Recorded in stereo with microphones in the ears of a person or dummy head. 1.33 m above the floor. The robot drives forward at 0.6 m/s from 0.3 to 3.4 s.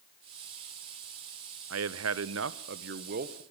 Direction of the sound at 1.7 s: 65° right (ahead or behind).